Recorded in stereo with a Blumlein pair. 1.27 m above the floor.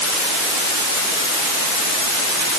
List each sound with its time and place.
Only background noise.